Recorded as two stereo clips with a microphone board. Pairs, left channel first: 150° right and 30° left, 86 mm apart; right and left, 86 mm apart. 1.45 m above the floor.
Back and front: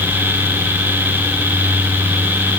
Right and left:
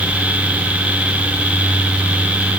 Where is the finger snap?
No finger snap in this recording.